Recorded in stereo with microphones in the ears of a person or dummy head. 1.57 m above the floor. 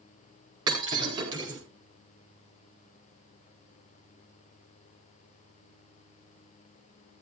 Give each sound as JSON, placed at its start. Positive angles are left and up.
{"t": 0.7, "sound": "breaking glass", "side_deg": -30, "distance_m": 9.5}